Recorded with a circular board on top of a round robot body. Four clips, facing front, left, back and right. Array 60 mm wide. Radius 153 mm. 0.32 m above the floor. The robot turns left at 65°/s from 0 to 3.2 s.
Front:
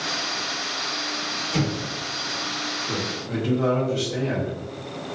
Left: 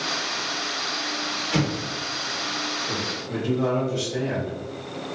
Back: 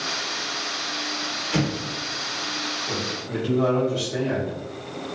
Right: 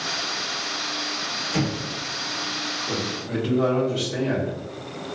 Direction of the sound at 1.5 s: 120° left.